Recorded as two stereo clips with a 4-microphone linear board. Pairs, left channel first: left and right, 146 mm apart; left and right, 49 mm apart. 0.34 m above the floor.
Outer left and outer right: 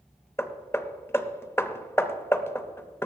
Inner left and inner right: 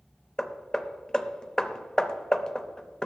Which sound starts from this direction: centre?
Hammering, at 0.4 s.